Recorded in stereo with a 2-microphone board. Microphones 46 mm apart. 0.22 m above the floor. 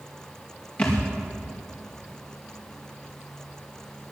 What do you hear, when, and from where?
0.8 s a thud: 30° left (ahead or behind), 4 m